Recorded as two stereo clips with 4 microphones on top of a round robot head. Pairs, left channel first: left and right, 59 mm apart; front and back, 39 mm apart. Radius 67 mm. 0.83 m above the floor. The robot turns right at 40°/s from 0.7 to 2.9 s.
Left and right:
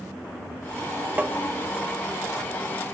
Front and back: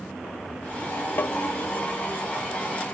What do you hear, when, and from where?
1.2 s tapping: 30° right, 0.6 m; by 1.4 s 25° right, 0.6 m